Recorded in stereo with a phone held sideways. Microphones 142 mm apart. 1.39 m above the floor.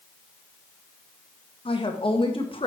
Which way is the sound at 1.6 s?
35° left (ahead or behind).